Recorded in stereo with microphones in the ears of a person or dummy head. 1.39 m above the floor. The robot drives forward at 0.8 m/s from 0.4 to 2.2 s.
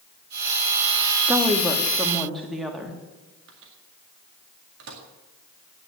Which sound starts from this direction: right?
A microwave, at 3.5 s.